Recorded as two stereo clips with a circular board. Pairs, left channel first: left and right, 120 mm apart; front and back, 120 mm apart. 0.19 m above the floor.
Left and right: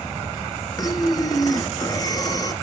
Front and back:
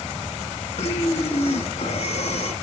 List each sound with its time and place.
0.8 s breathing: 30° left, 0.7 m